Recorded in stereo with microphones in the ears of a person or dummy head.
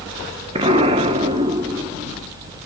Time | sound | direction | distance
0.6 | an explosion | 25° right (ahead or behind) | 1.0 m